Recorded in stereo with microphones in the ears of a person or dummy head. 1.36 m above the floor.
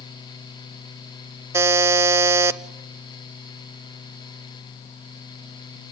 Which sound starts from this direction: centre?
A buzzer, at 1.5 s.